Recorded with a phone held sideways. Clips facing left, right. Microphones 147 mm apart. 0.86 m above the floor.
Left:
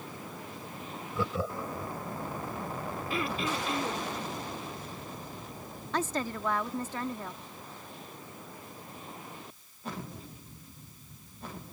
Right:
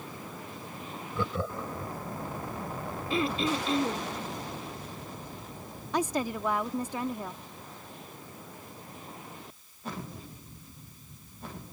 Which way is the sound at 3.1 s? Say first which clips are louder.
Right 5 dB; 25° right (ahead or behind).